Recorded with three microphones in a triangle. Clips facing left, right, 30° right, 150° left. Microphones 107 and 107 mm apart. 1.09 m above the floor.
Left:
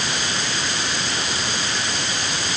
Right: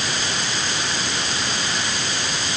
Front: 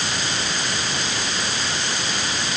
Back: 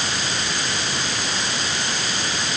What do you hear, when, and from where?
Only background noise.